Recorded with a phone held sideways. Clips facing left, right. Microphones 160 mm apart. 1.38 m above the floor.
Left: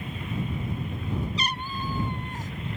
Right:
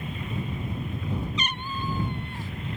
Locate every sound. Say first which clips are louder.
1.4 s a cat meowing: even; 35° left (ahead or behind); by 2.5 s 40° left (ahead or behind)